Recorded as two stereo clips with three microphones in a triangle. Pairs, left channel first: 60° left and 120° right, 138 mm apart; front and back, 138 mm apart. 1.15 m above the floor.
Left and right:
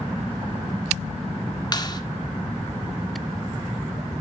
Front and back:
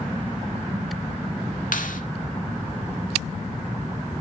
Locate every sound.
1.7 s a clap: straight ahead, 1.8 m